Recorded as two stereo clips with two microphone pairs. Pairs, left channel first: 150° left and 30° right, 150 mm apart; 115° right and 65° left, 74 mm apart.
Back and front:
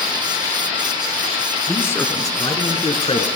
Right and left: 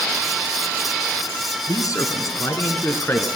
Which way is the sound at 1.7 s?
130° right.